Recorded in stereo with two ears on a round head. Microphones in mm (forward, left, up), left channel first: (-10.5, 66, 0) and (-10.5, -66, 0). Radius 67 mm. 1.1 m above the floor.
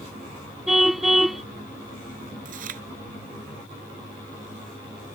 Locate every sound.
0.7 s a car horn: centre (ahead or behind)
2.5 s chewing: 65° right (ahead or behind)